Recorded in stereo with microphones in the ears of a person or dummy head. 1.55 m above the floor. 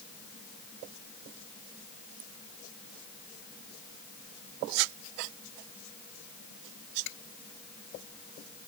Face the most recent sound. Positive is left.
No sound to turn to.